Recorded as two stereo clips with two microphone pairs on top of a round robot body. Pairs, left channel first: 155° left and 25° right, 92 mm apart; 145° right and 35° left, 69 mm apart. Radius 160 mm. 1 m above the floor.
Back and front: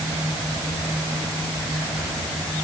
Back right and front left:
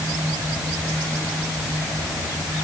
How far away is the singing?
I don't hear singing.